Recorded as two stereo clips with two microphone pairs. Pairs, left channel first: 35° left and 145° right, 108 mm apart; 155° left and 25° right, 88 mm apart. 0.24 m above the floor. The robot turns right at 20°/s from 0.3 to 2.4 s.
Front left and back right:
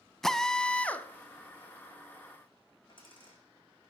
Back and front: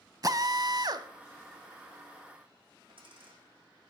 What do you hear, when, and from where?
0.2 s a drill: 50° right, 1.0 m; by 1.1 s 35° right, 1.0 m
2.9 s a dropped coin: 5° right, 6 m